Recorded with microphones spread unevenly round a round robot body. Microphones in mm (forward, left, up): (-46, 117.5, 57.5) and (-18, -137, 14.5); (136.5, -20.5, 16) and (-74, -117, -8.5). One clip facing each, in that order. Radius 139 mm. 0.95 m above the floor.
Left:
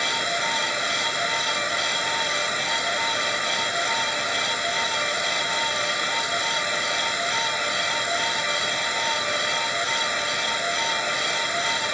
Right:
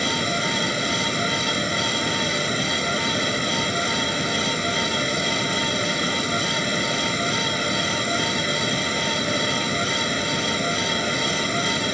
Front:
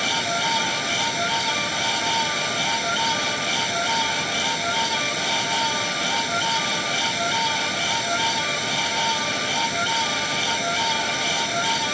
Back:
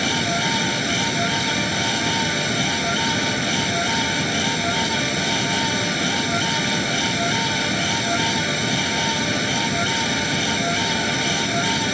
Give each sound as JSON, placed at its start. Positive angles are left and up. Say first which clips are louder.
{"t": 0.0, "sound": "running water", "louder": "right 6 dB, back 5 dB", "azimuth_deg": -140}